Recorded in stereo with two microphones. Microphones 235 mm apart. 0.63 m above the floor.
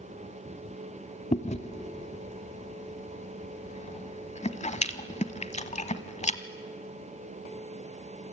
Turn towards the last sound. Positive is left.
turn(degrees=30)  # may be behind; listen again after turning